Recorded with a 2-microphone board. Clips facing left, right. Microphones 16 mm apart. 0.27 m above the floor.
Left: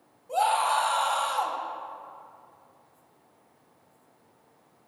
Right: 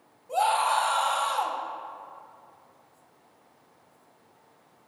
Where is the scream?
Centre (ahead or behind), 1.4 m.